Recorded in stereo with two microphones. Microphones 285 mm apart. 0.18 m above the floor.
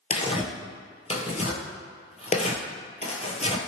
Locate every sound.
0.1 s tearing paper: 25° left (ahead or behind), 0.6 m